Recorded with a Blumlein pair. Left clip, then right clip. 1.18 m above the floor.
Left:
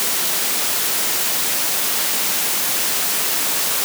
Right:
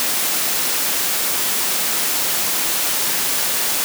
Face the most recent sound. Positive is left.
No sound to turn to.